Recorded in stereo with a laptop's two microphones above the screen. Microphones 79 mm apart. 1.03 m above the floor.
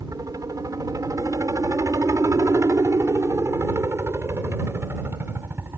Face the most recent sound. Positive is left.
turn(degrees=-30)  # may be behind; listen again after turning